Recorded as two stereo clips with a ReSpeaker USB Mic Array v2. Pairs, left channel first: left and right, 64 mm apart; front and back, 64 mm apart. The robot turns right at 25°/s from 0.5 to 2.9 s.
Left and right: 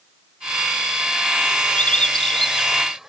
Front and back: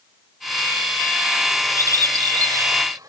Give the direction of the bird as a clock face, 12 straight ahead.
7 o'clock.